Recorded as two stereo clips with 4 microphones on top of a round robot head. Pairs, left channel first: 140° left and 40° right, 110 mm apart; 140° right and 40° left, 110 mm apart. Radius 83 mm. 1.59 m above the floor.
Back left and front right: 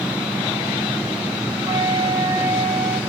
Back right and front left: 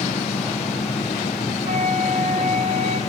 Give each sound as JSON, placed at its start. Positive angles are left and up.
{"t": 1.6, "sound": "a flute", "azimuth_deg": 15, "distance_m": 4.5}